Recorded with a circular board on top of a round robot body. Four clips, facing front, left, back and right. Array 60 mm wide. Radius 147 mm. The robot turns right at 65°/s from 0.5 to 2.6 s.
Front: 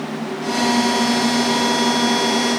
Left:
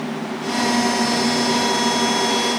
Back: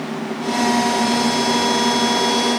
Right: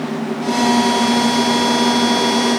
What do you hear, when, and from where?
Only background noise.